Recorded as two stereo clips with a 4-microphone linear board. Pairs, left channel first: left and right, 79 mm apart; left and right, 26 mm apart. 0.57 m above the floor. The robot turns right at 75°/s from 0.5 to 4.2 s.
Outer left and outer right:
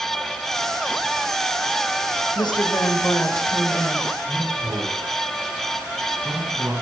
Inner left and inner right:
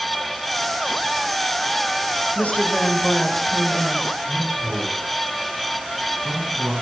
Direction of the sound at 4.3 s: 20° right (ahead or behind).